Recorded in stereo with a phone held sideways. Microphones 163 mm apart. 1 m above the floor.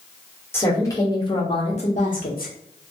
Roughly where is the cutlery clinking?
I don't hear cutlery clinking.